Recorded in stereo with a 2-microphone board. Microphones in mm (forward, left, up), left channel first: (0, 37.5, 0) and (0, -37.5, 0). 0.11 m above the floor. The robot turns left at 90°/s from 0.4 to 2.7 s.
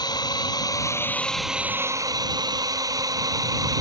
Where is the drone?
90° left; by 3.8 s 115° right.